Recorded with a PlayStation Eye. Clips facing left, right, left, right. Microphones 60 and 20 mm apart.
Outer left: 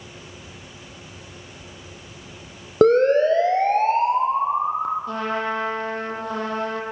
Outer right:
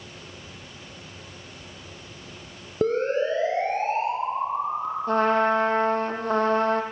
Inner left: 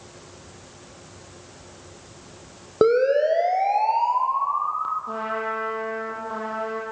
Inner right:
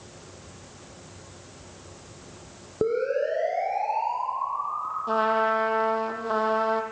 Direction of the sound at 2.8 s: 65° left (ahead or behind).